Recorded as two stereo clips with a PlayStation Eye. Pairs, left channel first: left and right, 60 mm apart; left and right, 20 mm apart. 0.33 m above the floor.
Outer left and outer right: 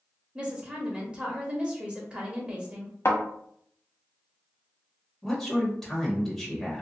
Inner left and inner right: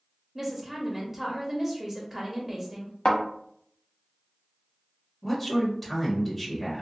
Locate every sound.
0.3 s a woman speaking: 15° right (ahead or behind), 0.8 m
3.0 s a thud: 45° left (ahead or behind), 0.9 m
5.2 s a man speaking: 5° left (ahead or behind), 1.1 m